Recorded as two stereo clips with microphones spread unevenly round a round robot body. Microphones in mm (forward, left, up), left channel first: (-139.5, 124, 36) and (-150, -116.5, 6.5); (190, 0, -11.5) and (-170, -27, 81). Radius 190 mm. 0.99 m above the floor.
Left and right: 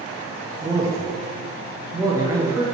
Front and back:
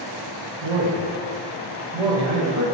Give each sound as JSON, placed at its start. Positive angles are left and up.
{"t": 0.6, "sound": "a man speaking", "azimuth_deg": -165, "distance_m": 1.4}